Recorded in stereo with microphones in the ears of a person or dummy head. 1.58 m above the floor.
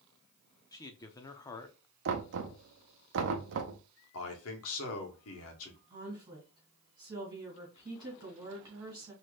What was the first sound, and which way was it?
A man speaking, 20° left (ahead or behind).